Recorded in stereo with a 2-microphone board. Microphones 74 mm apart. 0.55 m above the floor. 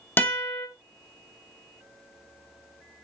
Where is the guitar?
25° left (ahead or behind), 0.9 m.